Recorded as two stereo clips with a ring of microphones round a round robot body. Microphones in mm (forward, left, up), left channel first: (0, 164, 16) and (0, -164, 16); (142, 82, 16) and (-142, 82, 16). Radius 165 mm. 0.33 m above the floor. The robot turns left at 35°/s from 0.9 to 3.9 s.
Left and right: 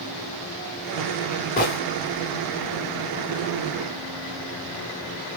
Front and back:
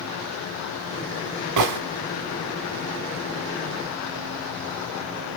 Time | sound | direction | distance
1.6 | a gunshot | 155° left | 0.6 m